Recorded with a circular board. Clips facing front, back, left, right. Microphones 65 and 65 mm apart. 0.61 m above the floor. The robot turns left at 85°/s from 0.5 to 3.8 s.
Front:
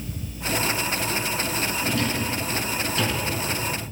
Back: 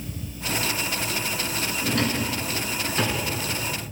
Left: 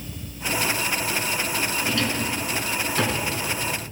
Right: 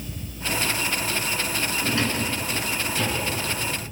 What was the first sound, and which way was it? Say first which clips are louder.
A drawer: back 3 dB, right 2 dB; 140° right.